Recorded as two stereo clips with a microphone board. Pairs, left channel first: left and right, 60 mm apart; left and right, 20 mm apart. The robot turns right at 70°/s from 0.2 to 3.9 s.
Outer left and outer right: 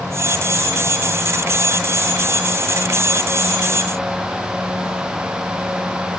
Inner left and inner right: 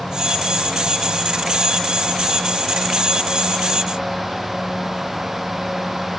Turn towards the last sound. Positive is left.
No sound to turn to.